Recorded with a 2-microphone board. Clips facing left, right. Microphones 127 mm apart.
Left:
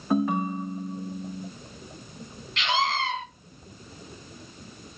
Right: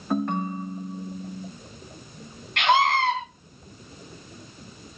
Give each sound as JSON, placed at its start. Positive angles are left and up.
{"t": 0.1, "sound": "a ringtone", "side_deg": 5, "distance_m": 0.8}
{"t": 2.6, "sound": "a scream", "side_deg": -60, "distance_m": 3.0}